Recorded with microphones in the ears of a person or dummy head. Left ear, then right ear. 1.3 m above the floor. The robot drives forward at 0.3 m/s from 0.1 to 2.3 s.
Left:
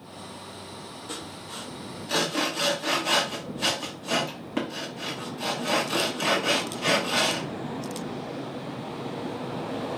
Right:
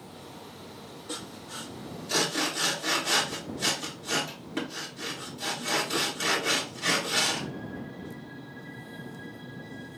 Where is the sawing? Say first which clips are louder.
Even; 40° left (ahead or behind), 0.9 m; by 7.5 s 30° left (ahead or behind), 1.1 m.